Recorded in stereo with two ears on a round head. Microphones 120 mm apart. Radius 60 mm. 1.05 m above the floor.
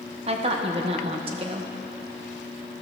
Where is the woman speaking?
45° right (ahead or behind), 0.9 m.